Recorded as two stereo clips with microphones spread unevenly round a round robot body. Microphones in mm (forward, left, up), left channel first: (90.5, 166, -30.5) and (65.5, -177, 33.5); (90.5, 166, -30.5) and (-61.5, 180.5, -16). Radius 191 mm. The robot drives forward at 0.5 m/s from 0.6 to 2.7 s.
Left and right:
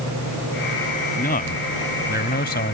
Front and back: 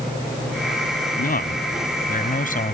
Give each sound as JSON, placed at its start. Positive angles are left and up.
{"t": 1.2, "sound": "a man speaking", "azimuth_deg": 20}